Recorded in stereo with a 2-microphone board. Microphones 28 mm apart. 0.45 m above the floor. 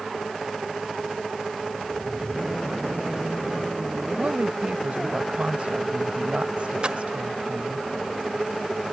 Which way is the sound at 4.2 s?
55° right (ahead or behind).